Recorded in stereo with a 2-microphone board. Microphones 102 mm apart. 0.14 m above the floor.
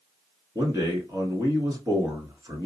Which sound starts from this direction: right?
A man speaking, at 0.6 s.